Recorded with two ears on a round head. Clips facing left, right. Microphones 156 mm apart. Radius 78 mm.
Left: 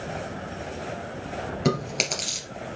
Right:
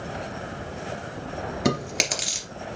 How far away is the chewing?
About 2.5 m.